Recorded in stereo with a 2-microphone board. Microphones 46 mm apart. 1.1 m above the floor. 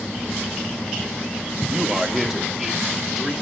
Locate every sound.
1.7 s a man speaking: 15° right (ahead or behind), 1.4 m; by 3.3 s 5° right (ahead or behind), 3 m